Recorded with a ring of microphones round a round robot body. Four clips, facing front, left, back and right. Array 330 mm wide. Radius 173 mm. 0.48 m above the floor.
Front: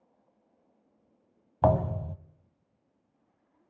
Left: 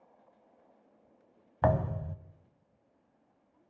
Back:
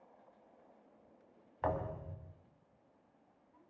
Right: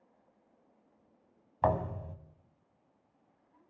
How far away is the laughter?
No laughter in this recording.